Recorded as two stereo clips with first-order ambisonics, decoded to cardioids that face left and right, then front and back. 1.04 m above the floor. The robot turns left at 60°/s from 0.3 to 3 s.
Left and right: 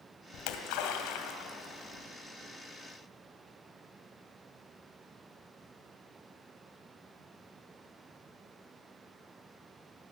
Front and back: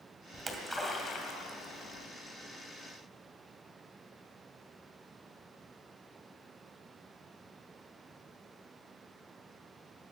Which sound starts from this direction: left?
A splash, at 0.3 s.